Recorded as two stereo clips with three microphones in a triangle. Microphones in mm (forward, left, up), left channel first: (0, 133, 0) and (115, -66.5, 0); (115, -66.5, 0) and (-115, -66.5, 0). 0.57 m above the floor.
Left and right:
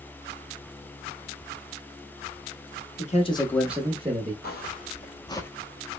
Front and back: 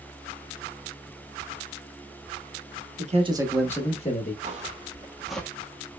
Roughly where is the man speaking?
Behind left.